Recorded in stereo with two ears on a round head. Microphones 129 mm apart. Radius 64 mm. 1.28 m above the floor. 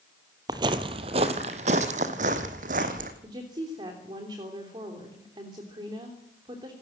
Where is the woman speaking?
30° right (ahead or behind), 3 m.